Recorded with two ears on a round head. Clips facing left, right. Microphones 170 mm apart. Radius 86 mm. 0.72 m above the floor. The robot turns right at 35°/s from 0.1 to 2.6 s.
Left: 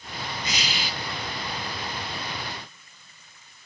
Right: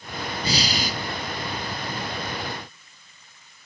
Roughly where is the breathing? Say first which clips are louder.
Right 8 dB; right.